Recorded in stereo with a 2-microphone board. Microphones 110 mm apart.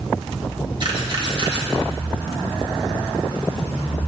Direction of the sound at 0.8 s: 45° right (ahead or behind).